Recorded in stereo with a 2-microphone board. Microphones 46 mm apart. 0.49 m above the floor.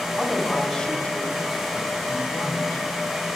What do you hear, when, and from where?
0.2 s a woman speaking: 5° right (ahead or behind), 2.0 m; by 2.9 s 75° left (ahead or behind), 2.5 m